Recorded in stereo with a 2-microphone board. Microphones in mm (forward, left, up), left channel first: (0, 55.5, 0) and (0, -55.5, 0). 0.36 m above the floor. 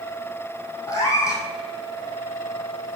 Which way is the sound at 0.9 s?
35° left (ahead or behind).